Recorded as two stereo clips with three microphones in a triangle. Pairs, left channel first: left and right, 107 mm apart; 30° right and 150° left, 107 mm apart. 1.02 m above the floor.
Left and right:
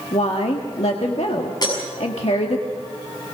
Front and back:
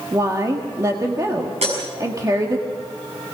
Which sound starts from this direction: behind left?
Breaking glass, at 1.6 s.